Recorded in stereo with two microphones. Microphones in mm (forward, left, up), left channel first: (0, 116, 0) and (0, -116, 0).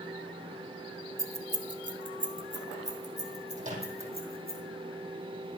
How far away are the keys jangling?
About 1.2 m.